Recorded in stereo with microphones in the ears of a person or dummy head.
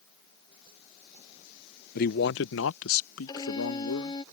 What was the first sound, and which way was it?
A man speaking, 45° left (ahead or behind).